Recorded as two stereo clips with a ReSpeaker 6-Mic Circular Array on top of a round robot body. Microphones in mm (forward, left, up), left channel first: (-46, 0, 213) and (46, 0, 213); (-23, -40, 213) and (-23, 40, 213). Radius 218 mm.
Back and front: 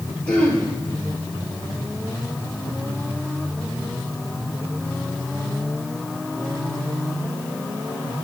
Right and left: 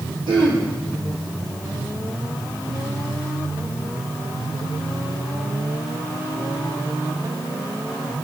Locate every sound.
0.3 s throat clearing: 100° left, 2 m